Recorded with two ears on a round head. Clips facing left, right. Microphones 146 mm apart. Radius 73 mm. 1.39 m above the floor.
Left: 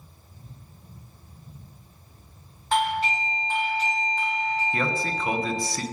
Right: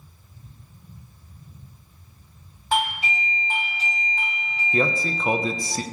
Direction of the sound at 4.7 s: 20° right (ahead or behind).